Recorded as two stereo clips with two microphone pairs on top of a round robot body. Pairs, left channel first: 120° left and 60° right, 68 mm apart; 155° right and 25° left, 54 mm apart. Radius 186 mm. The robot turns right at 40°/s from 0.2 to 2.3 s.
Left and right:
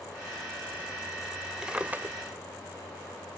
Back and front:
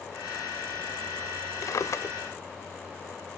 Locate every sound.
1.6 s a drawer: 145° right; by 2.1 s 120° right